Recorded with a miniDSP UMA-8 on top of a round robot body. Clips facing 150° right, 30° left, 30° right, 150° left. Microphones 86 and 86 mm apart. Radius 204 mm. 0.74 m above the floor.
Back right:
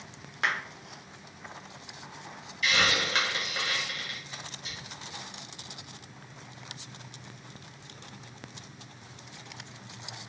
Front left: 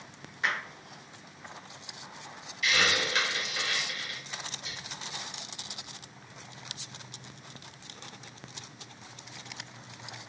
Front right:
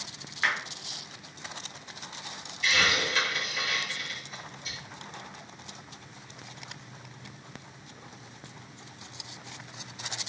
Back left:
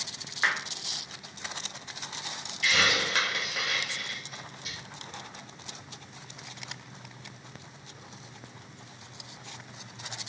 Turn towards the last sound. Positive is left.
turn(degrees=175)